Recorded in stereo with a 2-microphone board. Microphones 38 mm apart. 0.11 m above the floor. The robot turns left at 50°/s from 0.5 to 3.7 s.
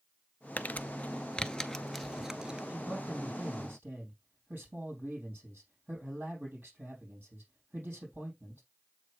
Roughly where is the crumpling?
Left.